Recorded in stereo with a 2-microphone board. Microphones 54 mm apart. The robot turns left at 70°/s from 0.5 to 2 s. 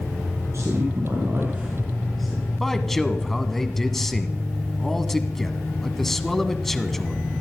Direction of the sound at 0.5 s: 60° right (ahead or behind).